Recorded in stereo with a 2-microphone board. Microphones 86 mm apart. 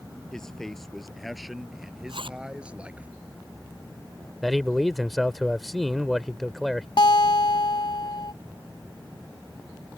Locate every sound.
0.3 s a man speaking: 5° left (ahead or behind); by 3.1 s 15° right (ahead or behind)
2.1 s a zipper: 90° right
4.4 s a man speaking: centre (ahead or behind)
7.0 s a guitar: 65° left (ahead or behind)